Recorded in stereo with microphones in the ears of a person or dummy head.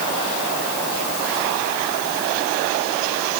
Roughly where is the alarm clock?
No alarm clock in this recording.